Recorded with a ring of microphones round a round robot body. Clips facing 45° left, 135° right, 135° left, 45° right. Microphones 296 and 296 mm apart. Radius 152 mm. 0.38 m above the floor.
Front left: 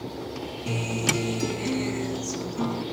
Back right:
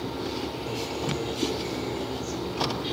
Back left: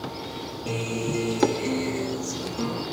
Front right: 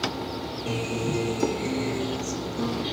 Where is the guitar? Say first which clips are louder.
Front left 5 dB, even; 50° left, 1.0 m.